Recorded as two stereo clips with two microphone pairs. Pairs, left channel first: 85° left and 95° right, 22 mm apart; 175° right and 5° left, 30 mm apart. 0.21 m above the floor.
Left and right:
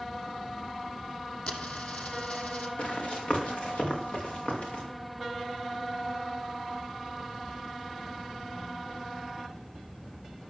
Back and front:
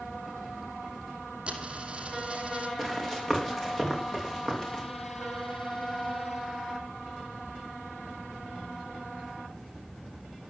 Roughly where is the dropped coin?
Ahead left.